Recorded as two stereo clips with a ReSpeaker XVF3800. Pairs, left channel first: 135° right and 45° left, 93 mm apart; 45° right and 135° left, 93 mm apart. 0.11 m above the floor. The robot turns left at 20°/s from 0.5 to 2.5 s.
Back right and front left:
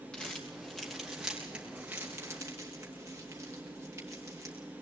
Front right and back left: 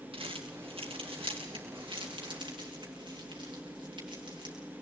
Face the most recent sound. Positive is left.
turn(degrees=105)